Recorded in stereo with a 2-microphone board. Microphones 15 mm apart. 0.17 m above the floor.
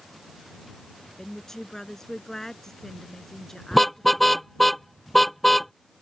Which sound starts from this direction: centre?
A car horn, at 3.7 s.